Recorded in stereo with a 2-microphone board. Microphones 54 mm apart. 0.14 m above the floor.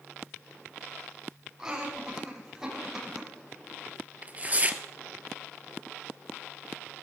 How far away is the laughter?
About 7.5 m.